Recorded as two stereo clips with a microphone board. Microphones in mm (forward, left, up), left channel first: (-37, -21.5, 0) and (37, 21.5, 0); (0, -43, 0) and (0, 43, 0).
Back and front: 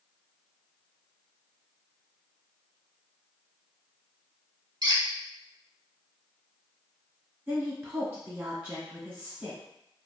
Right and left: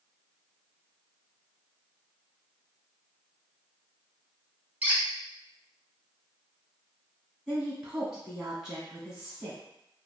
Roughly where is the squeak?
Ahead left.